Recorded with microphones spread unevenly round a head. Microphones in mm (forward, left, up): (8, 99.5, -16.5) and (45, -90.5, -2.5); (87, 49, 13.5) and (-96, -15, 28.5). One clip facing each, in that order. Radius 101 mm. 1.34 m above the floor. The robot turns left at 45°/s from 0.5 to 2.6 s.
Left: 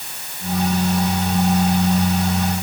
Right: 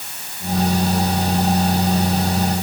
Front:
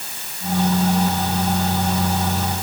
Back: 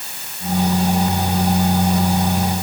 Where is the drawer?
I don't hear a drawer.